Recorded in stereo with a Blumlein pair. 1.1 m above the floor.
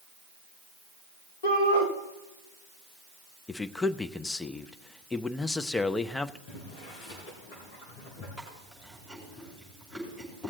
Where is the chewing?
5° left, 6 m.